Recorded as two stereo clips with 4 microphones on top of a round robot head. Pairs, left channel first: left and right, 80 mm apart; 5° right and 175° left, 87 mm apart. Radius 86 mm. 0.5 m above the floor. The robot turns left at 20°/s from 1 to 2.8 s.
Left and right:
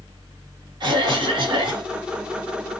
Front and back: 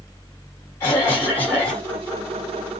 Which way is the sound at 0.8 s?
65° right.